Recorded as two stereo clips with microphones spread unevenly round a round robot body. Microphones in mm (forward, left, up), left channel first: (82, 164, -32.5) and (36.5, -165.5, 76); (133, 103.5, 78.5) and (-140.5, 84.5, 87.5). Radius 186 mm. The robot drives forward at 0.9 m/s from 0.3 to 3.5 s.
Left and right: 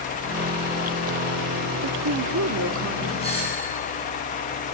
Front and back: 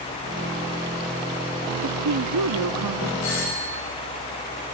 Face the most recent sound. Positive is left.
turn(degrees=15)